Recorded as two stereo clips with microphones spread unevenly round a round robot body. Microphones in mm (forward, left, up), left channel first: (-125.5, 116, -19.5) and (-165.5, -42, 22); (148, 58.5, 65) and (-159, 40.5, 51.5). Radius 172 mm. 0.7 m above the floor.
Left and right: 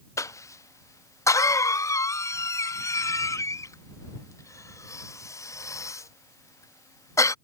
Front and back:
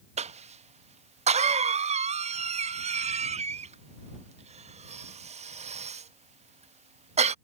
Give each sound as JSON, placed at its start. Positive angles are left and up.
{"t": 0.2, "sound": "a cough", "azimuth_deg": 125}